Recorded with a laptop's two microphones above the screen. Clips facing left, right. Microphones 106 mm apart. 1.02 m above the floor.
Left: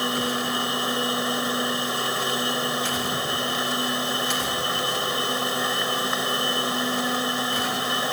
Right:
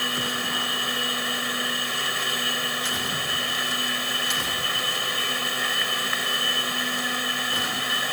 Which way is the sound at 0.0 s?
25° left (ahead or behind).